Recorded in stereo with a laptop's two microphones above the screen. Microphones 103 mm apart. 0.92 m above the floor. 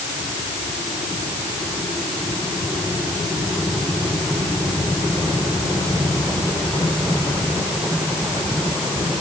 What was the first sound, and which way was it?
Only background noise.